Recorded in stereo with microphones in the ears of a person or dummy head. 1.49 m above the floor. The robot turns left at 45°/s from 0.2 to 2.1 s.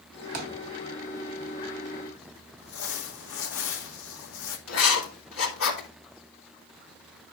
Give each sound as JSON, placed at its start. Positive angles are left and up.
{"t": 0.3, "sound": "a thud", "side_deg": -45, "distance_m": 1.6}
{"t": 2.6, "sound": "crumpling", "side_deg": 75, "distance_m": 2.0}
{"t": 4.7, "sound": "writing", "side_deg": 80, "distance_m": 3.0}